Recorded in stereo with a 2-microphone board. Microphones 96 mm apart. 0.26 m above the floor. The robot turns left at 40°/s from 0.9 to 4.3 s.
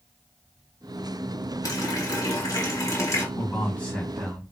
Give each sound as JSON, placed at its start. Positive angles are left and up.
{"t": 1.6, "sound": "a running tap", "azimuth_deg": 105, "distance_m": 1.2}
{"t": 3.4, "sound": "a man speaking", "azimuth_deg": 35, "distance_m": 2.0}